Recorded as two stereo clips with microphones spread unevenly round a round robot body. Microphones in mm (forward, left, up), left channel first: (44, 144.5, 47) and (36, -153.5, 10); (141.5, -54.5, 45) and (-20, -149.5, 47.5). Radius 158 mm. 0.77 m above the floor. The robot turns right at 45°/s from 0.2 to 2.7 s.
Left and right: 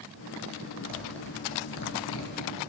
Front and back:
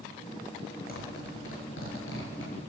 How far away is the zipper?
About 6.5 m.